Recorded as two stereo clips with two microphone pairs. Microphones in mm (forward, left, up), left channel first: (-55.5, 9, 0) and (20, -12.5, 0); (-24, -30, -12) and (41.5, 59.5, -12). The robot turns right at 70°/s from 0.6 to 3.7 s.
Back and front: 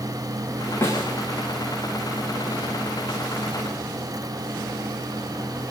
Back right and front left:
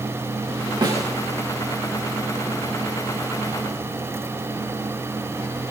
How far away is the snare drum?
About 10 m.